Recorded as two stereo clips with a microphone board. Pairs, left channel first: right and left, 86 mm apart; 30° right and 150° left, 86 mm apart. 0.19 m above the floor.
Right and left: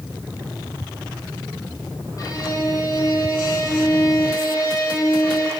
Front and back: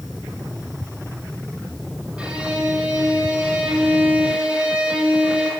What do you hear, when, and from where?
2.2 s a violin: 135° right, 3.5 m